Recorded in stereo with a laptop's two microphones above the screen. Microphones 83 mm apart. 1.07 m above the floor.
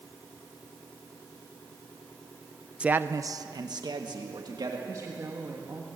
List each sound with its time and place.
2.8 s a man speaking: 15° right (ahead or behind), 0.7 m; by 4.8 s 55° right (ahead or behind), 2.5 m
4.9 s a woman speaking: 45° right (ahead or behind), 1.5 m